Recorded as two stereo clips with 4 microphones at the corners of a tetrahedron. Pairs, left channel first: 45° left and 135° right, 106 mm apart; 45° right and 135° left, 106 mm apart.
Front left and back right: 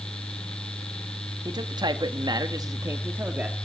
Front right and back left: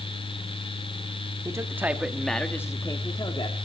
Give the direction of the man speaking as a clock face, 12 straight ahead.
6 o'clock.